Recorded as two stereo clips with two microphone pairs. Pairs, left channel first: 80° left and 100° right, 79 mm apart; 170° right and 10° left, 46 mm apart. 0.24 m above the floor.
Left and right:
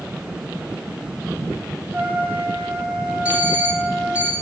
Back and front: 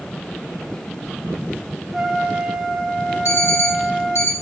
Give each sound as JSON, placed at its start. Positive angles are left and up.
{"t": 1.9, "sound": "a trumpet", "azimuth_deg": -55, "distance_m": 0.8}
{"t": 3.2, "sound": "an alarm clock", "azimuth_deg": -175, "distance_m": 1.8}